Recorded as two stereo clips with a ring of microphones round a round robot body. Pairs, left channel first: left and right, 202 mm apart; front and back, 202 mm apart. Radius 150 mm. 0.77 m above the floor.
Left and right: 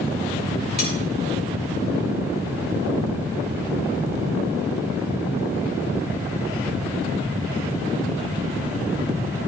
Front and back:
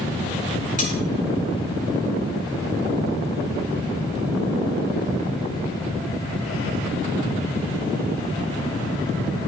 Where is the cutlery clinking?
50° left, 4.5 m.